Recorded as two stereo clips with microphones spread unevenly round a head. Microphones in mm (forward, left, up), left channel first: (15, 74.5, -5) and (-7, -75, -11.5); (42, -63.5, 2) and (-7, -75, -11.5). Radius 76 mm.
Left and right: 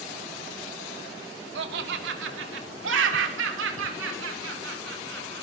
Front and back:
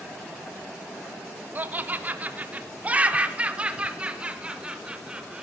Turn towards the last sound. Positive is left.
turn(degrees=-95)